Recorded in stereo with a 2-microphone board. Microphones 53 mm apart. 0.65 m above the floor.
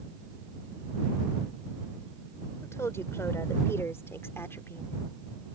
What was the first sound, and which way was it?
A woman speaking, 60° left (ahead or behind).